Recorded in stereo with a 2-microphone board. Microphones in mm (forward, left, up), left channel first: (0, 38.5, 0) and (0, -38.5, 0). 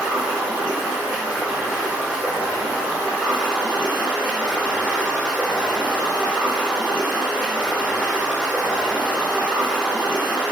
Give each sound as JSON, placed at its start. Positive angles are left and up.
{"t": 0.0, "sound": "running water", "side_deg": -20, "distance_m": 0.8}